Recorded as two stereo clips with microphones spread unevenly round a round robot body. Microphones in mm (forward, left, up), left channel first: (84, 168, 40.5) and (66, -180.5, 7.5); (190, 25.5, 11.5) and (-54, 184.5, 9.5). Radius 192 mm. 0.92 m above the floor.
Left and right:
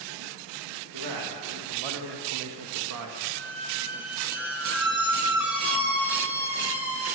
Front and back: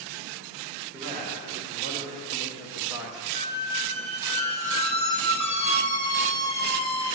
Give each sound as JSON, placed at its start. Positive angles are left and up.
{"t": 0.9, "sound": "a man speaking", "azimuth_deg": -125, "distance_m": 1.4}
{"t": 3.3, "sound": "a squeak", "azimuth_deg": -5, "distance_m": 1.2}